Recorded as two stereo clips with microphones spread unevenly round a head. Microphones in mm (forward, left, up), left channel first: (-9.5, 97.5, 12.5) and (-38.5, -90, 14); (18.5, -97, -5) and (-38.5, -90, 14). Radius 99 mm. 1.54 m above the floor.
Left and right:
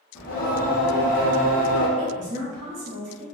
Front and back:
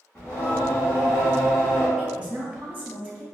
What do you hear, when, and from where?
0.1 s singing: 75° left, 0.9 m
2.0 s a woman speaking: 120° right, 2.0 m